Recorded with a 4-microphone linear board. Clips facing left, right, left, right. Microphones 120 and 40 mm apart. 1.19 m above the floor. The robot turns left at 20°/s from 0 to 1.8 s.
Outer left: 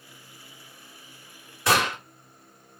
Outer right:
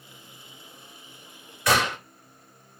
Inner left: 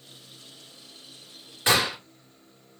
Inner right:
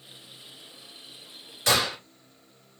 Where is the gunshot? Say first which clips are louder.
Even, inner left 1 dB; 25° left (ahead or behind), 3 m; by 2.0 s 30° left (ahead or behind), 3 m.